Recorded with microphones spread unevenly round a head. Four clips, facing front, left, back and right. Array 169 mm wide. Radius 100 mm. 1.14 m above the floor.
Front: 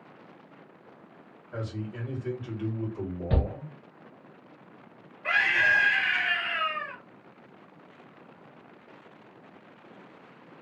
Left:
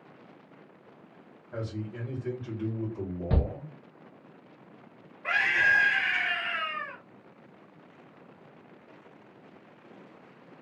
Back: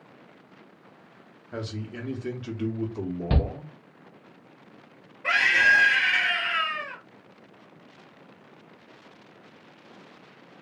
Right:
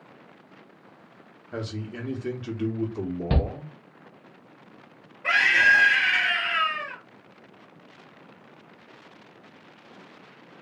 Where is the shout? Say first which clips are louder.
Right 3 dB, back 2 dB; 110° right, 1.1 m.